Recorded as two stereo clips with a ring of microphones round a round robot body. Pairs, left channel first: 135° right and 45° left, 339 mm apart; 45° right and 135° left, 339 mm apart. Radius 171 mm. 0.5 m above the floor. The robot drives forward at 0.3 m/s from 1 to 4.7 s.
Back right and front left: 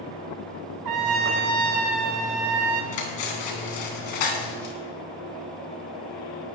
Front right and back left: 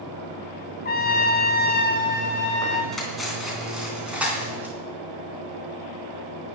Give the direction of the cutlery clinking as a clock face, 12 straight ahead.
4 o'clock.